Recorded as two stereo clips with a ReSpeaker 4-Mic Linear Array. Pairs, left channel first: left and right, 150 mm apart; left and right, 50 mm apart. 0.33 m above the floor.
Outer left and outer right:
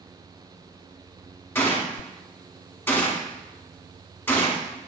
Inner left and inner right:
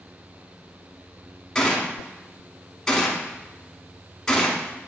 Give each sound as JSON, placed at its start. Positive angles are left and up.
{"t": 1.6, "sound": "a gunshot", "side_deg": 15, "distance_m": 0.7}